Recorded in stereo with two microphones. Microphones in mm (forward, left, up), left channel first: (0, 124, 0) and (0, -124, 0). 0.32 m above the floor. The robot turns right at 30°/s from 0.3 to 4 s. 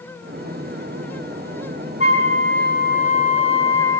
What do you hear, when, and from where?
2.0 s a flute: 105° left, 3 m; by 4.0 s 165° left, 3 m